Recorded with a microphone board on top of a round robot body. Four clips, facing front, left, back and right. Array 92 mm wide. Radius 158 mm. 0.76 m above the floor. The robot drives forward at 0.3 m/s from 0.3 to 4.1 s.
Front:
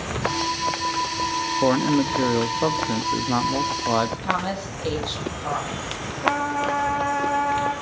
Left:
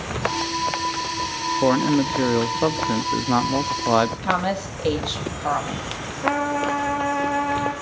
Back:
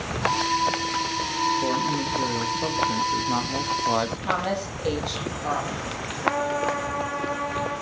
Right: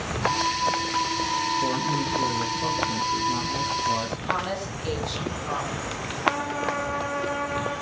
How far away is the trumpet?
About 4 m.